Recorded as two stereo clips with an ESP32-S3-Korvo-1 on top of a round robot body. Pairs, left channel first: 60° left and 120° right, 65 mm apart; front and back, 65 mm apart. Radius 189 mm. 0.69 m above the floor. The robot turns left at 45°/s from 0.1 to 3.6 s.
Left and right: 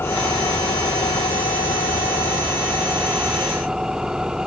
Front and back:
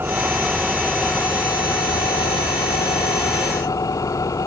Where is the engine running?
120° left; by 4.5 s 40° right.